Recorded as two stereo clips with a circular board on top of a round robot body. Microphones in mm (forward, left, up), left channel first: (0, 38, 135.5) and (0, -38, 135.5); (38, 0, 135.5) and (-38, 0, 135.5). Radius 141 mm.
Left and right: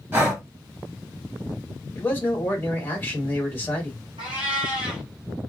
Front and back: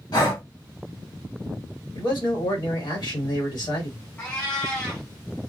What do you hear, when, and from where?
0.1 s breathing: 25° right, 1.5 m
1.9 s a man speaking: 25° left, 1.6 m
4.2 s a cat meowing: 70° right, 0.8 m